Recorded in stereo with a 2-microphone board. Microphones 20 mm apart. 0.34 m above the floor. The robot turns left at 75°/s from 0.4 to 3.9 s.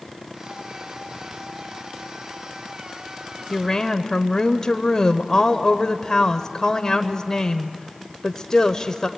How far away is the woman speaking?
About 0.9 m.